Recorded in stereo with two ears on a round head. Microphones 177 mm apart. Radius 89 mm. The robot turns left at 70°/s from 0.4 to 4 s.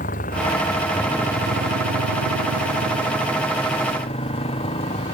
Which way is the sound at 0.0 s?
40° left.